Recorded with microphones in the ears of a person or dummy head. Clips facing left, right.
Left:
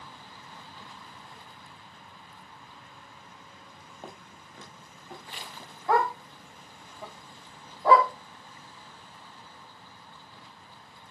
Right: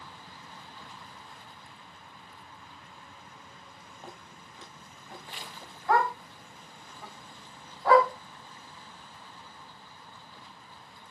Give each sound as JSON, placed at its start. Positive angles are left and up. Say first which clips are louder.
{"t": 4.0, "sound": "footsteps", "louder": "left 2 dB", "side_deg": 45, "distance_m": 5.5}
{"t": 5.9, "sound": "a dog barking", "louder": "left 1 dB", "side_deg": 20, "distance_m": 4.0}